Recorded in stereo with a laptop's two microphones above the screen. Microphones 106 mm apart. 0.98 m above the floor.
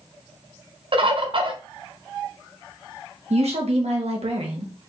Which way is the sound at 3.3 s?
70° right (ahead or behind).